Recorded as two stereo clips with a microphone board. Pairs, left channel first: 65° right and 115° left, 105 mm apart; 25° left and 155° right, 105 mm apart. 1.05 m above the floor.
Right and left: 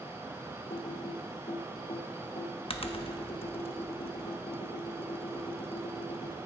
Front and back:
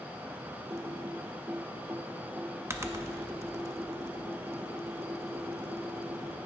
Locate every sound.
0.7 s typing on a keyboard: 95° right, 0.8 m